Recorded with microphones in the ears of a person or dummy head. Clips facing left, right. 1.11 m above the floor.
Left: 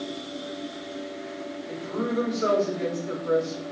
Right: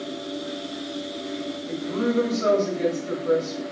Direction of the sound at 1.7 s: 40° right (ahead or behind).